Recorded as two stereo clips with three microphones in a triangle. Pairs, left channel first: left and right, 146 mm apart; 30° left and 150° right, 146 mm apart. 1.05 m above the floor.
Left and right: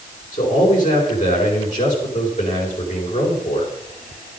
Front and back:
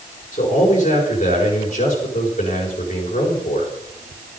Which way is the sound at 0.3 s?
65° left.